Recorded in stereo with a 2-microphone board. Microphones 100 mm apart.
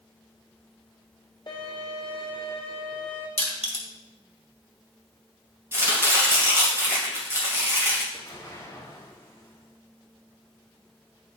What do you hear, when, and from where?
1.5 s a violin: 55° left (ahead or behind), 2 m
3.4 s crushing: 80° left, 1.7 m
5.7 s chopping: 25° right (ahead or behind), 2.5 m
8.1 s an explosion: 30° left (ahead or behind), 2.5 m